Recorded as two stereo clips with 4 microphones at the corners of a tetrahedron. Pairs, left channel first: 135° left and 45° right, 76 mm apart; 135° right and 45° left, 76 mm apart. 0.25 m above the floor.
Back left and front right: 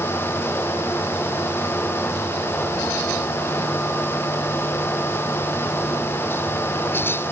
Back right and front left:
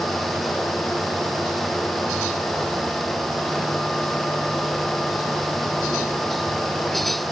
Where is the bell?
No bell in this recording.